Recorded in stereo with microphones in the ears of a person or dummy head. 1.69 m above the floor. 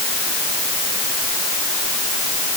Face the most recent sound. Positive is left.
No sound to turn to.